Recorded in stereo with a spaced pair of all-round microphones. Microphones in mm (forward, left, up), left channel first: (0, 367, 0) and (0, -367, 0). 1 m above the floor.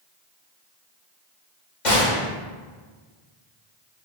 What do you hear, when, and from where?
1.9 s a gunshot: 70° left (ahead or behind), 1.5 m